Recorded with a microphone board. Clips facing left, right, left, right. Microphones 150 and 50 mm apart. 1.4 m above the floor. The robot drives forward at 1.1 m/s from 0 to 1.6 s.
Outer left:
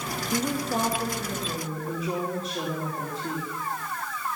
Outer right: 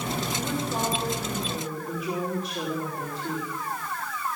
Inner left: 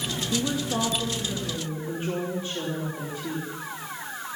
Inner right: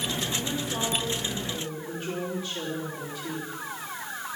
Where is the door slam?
No door slam in this recording.